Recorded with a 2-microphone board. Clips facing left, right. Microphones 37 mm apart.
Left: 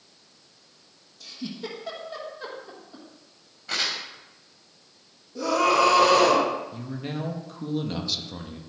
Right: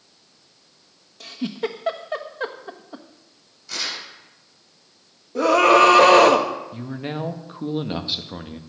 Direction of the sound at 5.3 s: 55° right (ahead or behind).